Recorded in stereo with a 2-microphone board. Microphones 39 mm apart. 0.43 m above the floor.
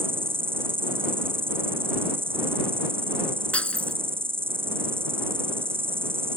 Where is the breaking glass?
35° left (ahead or behind).